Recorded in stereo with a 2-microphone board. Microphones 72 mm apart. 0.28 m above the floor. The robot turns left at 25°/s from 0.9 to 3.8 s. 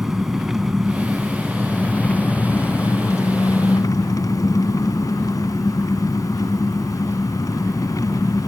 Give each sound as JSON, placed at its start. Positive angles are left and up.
{"t": 0.0, "sound": "an engine running", "azimuth_deg": -175, "distance_m": 1.1}